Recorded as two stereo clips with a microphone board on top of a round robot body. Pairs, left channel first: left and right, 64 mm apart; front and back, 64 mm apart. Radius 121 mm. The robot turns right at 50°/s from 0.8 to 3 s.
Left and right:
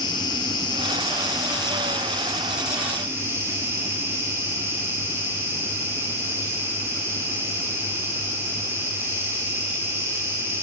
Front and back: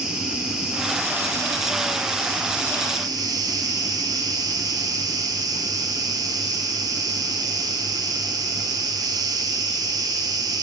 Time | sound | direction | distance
0.0 | an insect | 100° left | 0.9 m